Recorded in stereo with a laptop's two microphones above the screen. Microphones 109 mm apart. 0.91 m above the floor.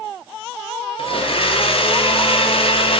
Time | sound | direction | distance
1.0 | a blender | 55° left (ahead or behind) | 0.5 m